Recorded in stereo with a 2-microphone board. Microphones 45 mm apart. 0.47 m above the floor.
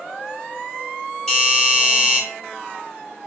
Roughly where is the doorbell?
Centre.